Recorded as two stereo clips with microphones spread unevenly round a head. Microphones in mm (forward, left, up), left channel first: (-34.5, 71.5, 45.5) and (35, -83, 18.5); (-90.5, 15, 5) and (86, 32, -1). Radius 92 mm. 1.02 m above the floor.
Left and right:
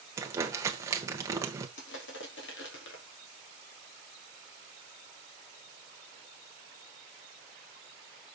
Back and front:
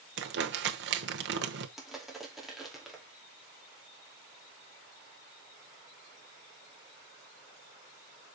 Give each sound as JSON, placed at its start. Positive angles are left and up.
{"t": 0.2, "sound": "crumpling", "azimuth_deg": 15, "distance_m": 1.1}
{"t": 1.8, "sound": "crushing", "azimuth_deg": 95, "distance_m": 2.5}